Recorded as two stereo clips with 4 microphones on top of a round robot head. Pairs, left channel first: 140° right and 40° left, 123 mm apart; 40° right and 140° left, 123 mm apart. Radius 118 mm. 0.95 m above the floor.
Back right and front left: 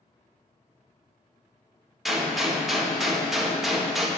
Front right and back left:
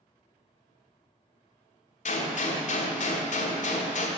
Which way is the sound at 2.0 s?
50° right.